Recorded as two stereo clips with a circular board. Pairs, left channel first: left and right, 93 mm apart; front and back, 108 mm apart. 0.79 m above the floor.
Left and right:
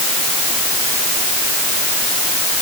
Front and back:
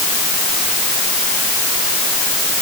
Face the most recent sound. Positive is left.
No sound to turn to.